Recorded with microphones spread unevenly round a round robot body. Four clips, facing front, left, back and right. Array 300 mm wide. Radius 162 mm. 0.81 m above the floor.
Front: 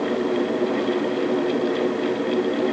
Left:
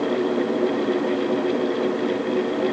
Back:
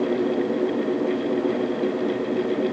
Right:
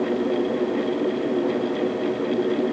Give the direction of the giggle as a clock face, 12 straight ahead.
I don't hear a giggle.